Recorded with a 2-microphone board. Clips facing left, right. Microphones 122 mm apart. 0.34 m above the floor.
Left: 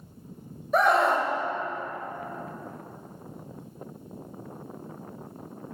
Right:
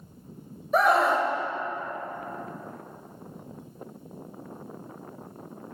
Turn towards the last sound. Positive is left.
turn(degrees=0)  # may be behind; listen again after turning